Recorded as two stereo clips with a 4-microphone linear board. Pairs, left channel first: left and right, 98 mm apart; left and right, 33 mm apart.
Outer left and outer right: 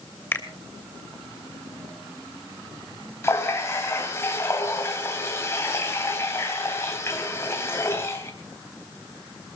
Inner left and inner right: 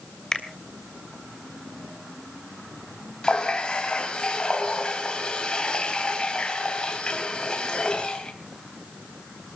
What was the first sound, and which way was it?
A finger snap, 25° left (ahead or behind).